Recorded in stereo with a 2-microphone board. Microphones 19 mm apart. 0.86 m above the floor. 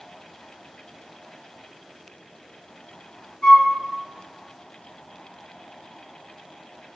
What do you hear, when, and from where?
3.4 s a flute: 80° left, 1.5 m